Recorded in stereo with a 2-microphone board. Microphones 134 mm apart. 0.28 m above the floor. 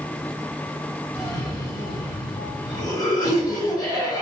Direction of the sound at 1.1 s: 30° left (ahead or behind).